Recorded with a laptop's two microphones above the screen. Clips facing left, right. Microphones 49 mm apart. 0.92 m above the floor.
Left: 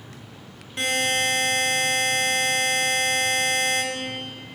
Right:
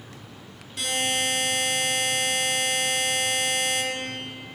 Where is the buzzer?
35° left (ahead or behind), 1.6 m.